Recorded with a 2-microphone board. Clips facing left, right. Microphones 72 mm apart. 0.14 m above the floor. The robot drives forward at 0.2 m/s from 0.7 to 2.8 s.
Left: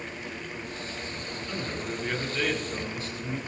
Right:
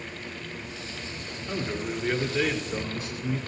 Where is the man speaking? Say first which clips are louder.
Right 4 dB; 10° right (ahead or behind), 1.9 m.